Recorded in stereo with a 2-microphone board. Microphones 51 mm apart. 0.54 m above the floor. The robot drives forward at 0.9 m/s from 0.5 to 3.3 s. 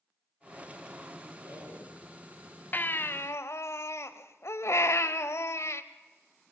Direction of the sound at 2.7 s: 40° left (ahead or behind).